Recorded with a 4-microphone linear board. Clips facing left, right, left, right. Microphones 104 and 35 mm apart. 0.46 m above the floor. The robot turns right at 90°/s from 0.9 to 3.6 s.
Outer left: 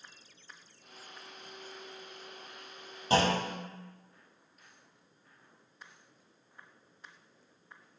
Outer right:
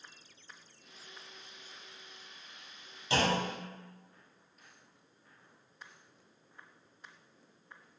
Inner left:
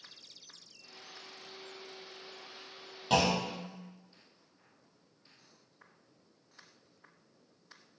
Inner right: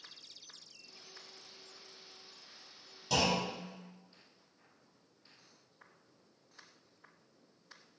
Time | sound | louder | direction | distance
3.1 | a clunk | outer left 3 dB, inner left 3 dB | 135° left | 0.5 m